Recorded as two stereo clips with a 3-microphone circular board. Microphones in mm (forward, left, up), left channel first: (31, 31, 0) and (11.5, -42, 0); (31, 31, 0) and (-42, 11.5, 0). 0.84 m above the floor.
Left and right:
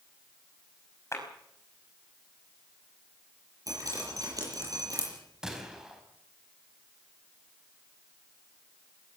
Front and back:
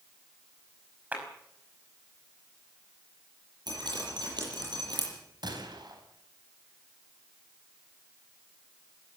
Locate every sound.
1.1 s a clap: 125° left, 5.5 m
3.7 s dripping: 145° right, 8.5 m
5.4 s a gunshot: 175° left, 4 m